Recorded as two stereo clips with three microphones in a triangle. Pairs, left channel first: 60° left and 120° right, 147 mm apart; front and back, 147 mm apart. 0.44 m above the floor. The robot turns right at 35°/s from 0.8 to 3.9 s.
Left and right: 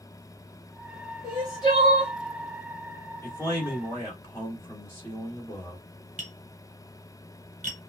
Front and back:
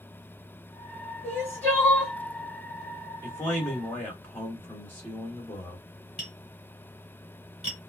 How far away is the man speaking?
About 1.3 m.